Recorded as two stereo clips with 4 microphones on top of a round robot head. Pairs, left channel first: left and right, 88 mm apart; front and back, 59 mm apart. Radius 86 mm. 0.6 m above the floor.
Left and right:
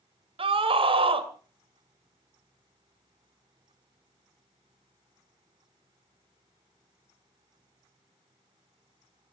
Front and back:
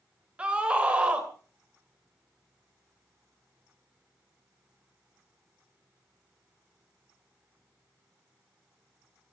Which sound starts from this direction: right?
A scream, at 0.4 s.